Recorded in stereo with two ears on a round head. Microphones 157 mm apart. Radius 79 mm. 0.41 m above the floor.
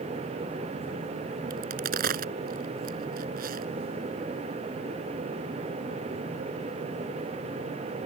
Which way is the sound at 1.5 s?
55° right (ahead or behind).